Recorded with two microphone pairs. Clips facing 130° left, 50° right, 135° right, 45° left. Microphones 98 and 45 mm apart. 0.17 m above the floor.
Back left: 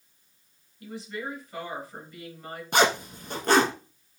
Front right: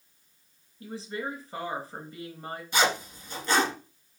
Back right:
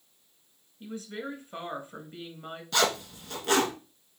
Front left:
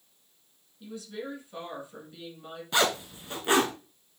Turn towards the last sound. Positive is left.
turn(degrees=115)